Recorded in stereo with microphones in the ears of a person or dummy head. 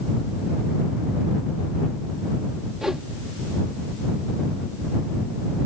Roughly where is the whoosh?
Centre.